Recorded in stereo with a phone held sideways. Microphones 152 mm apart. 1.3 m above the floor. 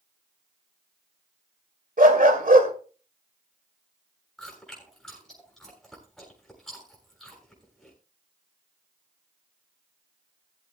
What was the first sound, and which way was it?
A dog barking, 65° right (ahead or behind).